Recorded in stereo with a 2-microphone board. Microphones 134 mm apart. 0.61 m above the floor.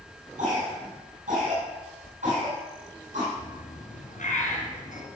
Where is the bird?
70° left (ahead or behind), 2.5 m.